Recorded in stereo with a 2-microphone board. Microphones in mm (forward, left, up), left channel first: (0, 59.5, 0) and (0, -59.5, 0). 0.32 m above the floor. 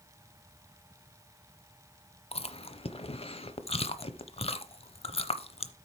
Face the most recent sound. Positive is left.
turn(degrees=55)  # may be behind; listen again after turning